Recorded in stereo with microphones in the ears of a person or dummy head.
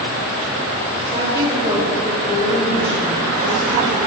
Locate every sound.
1.1 s a woman speaking: 30° right (ahead or behind), 2 m; by 4.0 s 55° left (ahead or behind), 3.5 m